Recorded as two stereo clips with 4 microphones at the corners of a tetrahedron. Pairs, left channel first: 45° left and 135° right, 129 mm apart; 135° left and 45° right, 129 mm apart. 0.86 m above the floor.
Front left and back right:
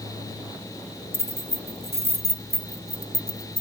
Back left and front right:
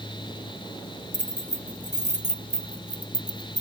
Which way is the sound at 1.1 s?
65° right.